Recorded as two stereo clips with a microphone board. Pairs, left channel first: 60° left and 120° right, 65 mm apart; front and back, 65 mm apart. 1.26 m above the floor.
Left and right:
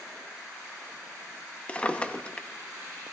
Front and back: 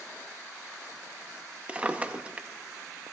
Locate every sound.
1.7 s a drawer: 125° left, 0.6 m